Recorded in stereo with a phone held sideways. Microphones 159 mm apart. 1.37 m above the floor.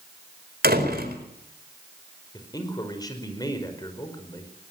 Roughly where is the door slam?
Right.